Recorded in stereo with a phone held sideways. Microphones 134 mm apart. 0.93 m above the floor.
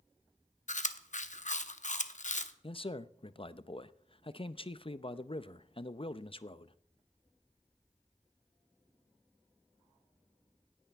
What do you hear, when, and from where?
0.7 s chewing: 65° left (ahead or behind), 0.7 m
2.6 s a man speaking: 40° left (ahead or behind), 0.5 m